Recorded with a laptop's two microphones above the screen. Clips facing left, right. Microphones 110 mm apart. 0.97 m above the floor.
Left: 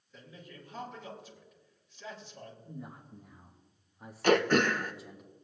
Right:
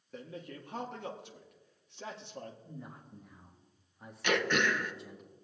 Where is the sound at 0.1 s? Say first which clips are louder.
Right 6 dB; 65° right (ahead or behind), 1.3 m.